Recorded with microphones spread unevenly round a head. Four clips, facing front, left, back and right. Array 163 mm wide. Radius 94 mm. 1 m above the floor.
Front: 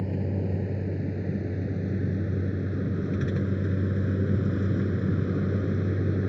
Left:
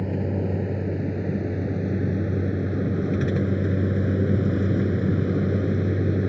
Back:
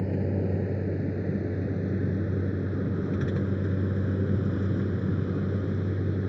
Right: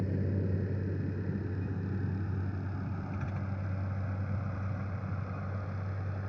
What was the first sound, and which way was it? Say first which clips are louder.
A vehicle: left 8 dB, back 2 dB; 140° left.